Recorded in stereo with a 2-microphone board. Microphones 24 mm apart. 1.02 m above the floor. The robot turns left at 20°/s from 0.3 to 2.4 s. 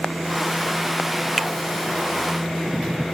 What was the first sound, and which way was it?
A finger snap, 5° left (ahead or behind).